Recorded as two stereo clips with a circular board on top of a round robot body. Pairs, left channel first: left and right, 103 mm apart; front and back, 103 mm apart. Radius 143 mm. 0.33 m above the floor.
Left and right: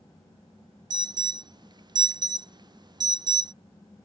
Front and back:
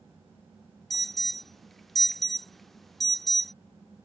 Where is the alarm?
90° right.